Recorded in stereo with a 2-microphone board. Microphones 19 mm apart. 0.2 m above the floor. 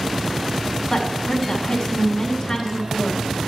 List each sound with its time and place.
0.9 s a woman speaking: 40° left (ahead or behind), 1.2 m